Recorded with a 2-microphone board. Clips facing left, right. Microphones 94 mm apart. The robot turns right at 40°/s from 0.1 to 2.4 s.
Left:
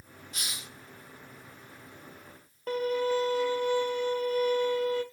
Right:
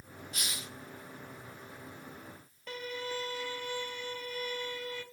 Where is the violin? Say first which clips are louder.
Left 12 dB; 45° left (ahead or behind), 0.5 m.